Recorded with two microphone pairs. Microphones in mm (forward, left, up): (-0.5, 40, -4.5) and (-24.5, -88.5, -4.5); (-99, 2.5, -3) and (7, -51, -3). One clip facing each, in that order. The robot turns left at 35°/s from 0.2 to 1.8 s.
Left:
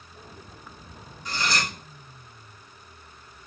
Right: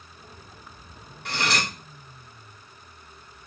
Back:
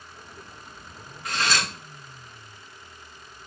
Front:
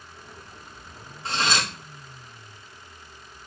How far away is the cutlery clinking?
About 1.0 m.